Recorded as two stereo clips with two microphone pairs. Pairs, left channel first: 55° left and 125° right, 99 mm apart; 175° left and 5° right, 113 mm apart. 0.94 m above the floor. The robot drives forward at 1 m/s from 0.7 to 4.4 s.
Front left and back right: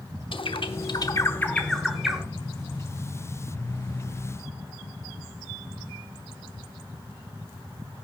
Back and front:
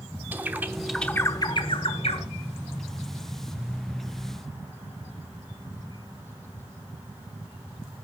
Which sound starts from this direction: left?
A bird, at 0.3 s.